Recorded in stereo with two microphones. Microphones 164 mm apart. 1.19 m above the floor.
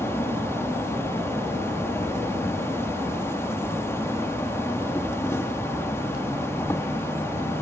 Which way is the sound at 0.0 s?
15° left (ahead or behind).